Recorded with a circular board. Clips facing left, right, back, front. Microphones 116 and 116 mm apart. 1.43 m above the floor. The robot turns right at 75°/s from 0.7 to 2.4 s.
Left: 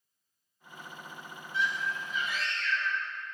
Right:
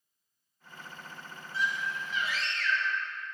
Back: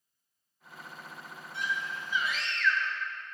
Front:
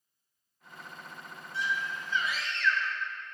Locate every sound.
1.5 s a scream: 145° right, 1.9 m; by 3.0 s 85° right, 1.9 m